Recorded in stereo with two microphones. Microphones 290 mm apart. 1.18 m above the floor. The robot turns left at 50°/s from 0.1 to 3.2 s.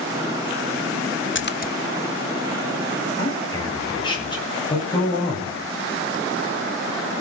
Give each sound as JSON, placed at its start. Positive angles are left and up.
{"t": 1.4, "sound": "a splash", "side_deg": 40, "distance_m": 1.1}
{"t": 3.2, "sound": "a man speaking", "side_deg": 15, "distance_m": 10.0}